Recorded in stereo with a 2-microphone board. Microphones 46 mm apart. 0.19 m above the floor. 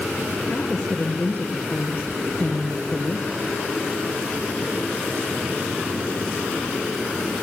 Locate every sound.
0.5 s a woman speaking: 20° left (ahead or behind), 3.5 m